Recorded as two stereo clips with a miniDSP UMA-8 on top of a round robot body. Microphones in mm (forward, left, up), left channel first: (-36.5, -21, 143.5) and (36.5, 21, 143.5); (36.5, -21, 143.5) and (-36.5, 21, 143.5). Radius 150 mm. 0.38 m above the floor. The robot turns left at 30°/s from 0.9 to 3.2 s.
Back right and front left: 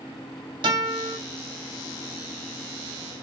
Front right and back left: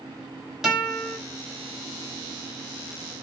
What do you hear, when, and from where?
0.6 s a guitar: 65° left, 1.0 m; by 1.2 s 55° left, 1.0 m